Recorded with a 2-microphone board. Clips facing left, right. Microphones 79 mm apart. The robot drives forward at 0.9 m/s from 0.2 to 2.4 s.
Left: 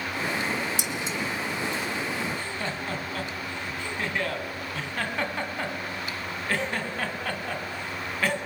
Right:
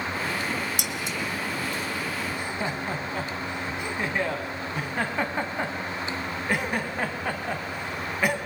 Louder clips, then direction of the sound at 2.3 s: Right 2 dB; 15° right (ahead or behind).